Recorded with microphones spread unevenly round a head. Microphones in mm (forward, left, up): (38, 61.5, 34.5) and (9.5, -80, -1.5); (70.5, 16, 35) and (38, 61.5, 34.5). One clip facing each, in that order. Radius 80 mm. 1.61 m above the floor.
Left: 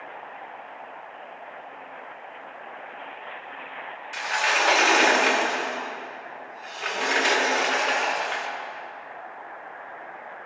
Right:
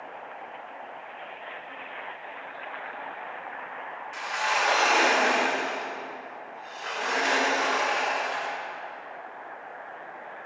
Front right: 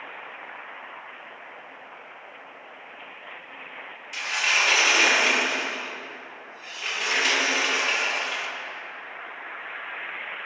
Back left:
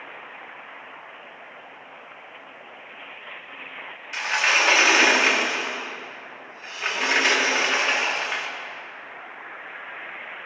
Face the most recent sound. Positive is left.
turn(degrees=75)